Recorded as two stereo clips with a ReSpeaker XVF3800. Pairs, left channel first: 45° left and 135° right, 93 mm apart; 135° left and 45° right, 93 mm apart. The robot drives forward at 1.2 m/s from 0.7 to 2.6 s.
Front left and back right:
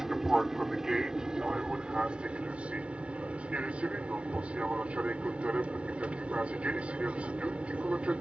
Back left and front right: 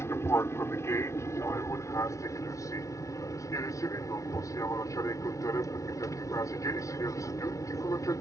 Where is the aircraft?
145° left; by 8.2 s 155° left.